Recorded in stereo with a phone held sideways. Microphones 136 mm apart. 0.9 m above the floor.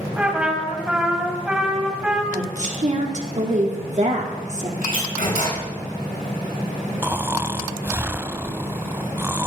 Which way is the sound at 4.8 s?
75° left (ahead or behind).